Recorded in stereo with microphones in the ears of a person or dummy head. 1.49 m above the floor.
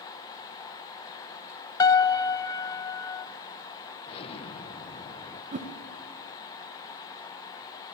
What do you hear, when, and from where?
1.8 s a piano: 20° left (ahead or behind), 0.6 m
4.1 s an explosion: 30° left (ahead or behind), 1.1 m
5.5 s a whoosh: 35° right (ahead or behind), 1.4 m